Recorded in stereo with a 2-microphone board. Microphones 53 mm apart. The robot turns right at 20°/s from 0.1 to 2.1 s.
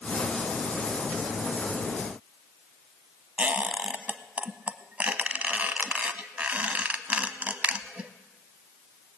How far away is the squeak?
About 0.7 m.